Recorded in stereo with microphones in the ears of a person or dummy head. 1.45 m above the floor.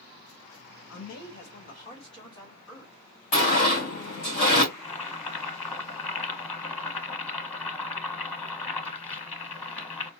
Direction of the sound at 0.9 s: 65° left (ahead or behind).